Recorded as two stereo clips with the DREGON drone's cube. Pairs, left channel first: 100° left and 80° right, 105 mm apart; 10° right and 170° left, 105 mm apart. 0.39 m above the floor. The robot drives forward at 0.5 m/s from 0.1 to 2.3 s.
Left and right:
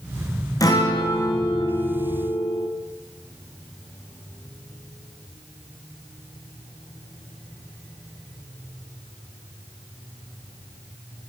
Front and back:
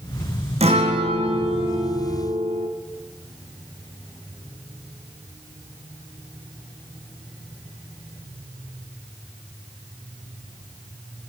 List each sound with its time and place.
0.6 s a guitar: 155° left, 5 m; by 2.7 s 160° left, 5.5 m